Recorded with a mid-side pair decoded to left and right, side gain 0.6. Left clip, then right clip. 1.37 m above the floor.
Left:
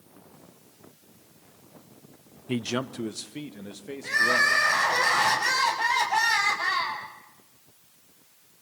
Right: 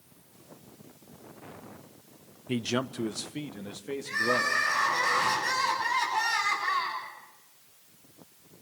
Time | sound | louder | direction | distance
2.5 | a man speaking | left 1 dB | 10° left | 0.6 m
4.0 | crying | left 6 dB | 65° left | 7.5 m